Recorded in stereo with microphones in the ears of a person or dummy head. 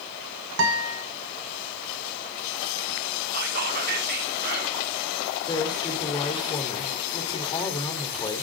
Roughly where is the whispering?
Right.